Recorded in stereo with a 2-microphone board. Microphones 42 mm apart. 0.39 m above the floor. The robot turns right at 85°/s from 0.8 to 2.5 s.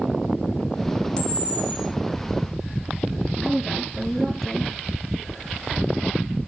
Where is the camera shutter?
25° left, 2.5 m; by 1.9 s 85° left, 2.5 m.